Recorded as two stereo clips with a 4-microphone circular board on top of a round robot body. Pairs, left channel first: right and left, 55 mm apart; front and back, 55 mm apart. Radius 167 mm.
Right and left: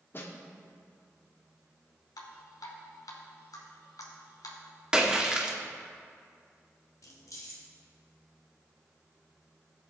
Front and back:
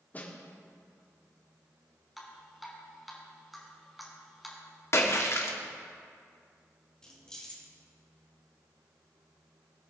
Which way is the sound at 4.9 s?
15° left.